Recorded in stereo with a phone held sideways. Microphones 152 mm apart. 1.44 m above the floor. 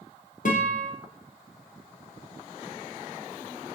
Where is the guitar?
60° left (ahead or behind), 0.6 m.